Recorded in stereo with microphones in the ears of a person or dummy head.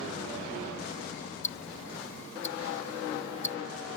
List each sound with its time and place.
1.4 s ticking: 35° left (ahead or behind)